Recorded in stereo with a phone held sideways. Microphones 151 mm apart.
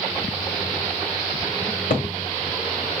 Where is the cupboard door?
60° left (ahead or behind), 1.6 m.